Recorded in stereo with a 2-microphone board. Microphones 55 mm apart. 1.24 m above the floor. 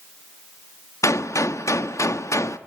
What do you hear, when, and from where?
1.0 s a gunshot: 65° left (ahead or behind), 1.1 m